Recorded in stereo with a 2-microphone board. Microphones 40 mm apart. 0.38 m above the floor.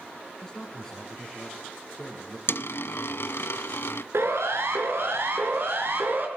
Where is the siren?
75° right (ahead or behind), 5.5 m; by 6.3 s 55° right (ahead or behind), 5 m.